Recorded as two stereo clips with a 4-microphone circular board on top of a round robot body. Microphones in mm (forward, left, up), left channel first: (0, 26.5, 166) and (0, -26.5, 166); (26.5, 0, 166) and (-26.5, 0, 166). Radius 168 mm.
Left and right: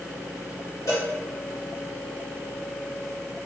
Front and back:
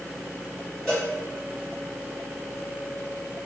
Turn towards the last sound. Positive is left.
turn(degrees=85)